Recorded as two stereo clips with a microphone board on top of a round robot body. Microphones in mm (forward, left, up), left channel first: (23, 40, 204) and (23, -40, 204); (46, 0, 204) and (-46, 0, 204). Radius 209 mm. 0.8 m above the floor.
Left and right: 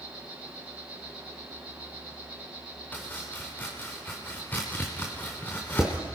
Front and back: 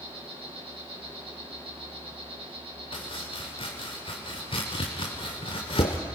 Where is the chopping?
25° left, 0.5 m.